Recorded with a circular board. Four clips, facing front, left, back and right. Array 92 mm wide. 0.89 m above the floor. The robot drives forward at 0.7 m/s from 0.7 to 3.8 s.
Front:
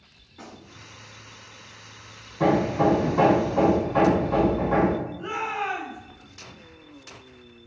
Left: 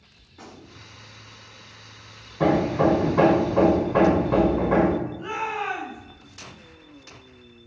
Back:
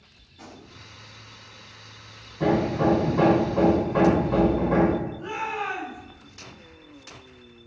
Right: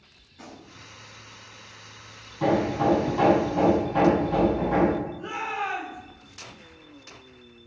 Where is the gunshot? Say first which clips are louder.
Left 1 dB, front 1 dB; 40° left, 3 m.